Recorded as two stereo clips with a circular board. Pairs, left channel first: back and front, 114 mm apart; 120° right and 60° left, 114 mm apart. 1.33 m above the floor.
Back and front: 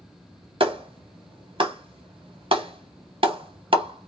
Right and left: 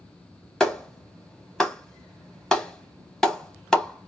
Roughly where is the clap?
Ahead right.